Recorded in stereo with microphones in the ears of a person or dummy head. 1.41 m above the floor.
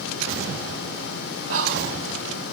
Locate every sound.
1.5 s whispering: 80° right, 2 m